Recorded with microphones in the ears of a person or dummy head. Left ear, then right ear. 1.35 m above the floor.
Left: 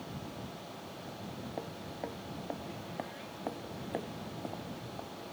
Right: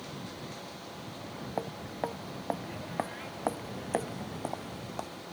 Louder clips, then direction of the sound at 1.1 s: Right 7 dB; 40° right (ahead or behind).